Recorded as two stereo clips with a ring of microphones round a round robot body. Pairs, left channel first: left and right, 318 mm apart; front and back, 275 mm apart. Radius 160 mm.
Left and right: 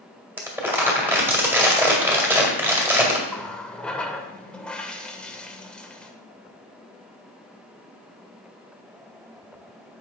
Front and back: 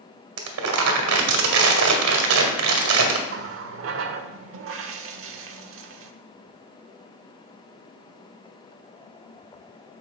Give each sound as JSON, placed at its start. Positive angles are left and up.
{"t": 0.4, "sound": "crumpling", "azimuth_deg": -175, "distance_m": 1.9}
{"t": 3.3, "sound": "a running tap", "azimuth_deg": 175, "distance_m": 0.8}